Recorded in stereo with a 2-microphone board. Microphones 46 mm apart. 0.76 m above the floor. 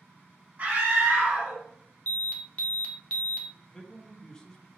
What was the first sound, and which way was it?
A scream, 40° right (ahead or behind).